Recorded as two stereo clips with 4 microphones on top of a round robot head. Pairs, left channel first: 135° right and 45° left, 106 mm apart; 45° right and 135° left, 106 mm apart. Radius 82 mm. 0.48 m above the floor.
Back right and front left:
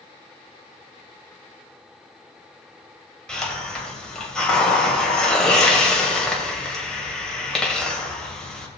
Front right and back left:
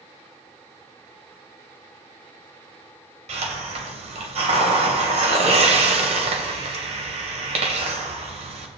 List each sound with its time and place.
3.3 s a hiss: 145° left, 2.5 m